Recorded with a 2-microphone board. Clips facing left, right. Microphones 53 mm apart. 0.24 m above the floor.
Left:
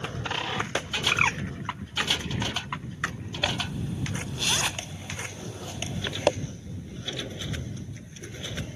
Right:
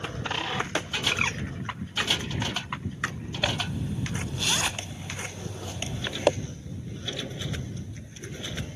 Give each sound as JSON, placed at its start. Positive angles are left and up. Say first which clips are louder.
{"t": 1.1, "sound": "a bird", "louder": "left 4 dB", "side_deg": 25}
{"t": 3.4, "sound": "a zipper", "louder": "even", "side_deg": 0}